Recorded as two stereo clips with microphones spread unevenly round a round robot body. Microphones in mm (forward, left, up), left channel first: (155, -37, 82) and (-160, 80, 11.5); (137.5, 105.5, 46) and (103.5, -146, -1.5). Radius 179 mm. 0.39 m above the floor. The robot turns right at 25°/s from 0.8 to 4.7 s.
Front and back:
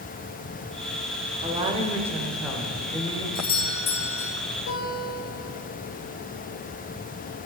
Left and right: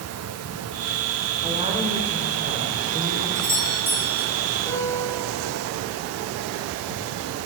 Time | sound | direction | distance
1.4 | a woman speaking | 150° right | 1.4 m
3.4 | a doorbell | 75° right | 1.5 m
4.7 | a guitar | 5° right | 3 m